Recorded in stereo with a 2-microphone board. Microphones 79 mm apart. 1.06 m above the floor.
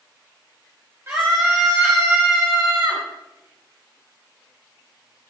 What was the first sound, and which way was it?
A scream, 35° right (ahead or behind).